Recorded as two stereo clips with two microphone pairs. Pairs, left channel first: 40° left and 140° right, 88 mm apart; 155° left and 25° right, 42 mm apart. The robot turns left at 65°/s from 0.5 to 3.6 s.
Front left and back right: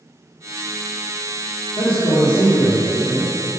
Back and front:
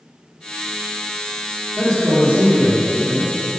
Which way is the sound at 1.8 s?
65° left.